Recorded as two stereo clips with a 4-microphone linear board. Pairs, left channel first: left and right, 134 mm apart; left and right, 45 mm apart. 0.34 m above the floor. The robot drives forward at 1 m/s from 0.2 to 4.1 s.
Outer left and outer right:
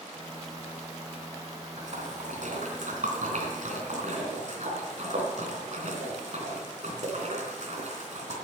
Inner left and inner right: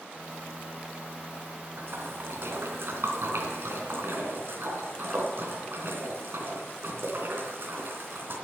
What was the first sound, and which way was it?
A splash, 65° right (ahead or behind).